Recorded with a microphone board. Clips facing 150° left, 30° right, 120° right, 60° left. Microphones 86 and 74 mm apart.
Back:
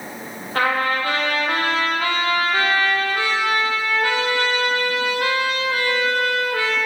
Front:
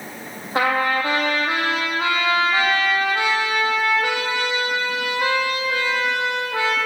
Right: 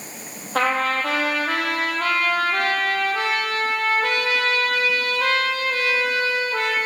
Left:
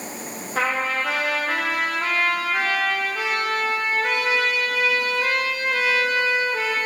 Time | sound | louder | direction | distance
0.6 | a trumpet | front 1 dB, right 3 dB | 100° right | 6 m